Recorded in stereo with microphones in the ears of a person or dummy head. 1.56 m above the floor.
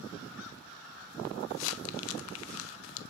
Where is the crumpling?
80° left, 0.7 m.